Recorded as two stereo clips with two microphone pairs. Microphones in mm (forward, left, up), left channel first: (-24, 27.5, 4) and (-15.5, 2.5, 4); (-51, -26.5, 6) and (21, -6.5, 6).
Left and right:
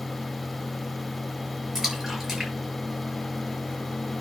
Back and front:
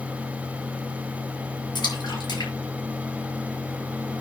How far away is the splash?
About 7 m.